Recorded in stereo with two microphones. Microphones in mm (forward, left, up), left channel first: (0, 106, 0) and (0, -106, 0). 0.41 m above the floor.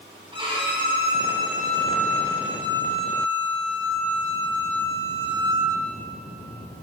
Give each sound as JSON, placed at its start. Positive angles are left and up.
{"t": 0.3, "sound": "a violin", "side_deg": -25, "distance_m": 1.6}